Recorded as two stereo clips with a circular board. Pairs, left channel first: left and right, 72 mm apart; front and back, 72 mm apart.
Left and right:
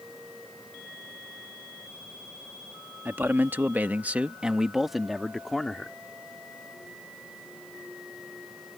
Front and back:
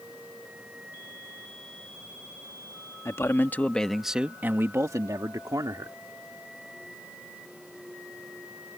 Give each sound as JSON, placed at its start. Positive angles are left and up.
{"t": 3.0, "sound": "a man speaking", "azimuth_deg": -35}